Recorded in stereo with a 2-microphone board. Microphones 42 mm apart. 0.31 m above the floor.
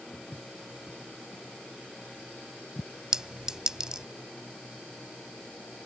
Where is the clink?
20° right (ahead or behind).